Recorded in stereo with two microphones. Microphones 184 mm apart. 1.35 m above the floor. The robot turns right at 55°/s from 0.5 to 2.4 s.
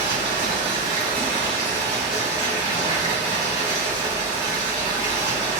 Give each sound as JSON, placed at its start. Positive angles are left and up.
{"t": 0.0, "sound": "running water", "azimuth_deg": 95, "distance_m": 1.7}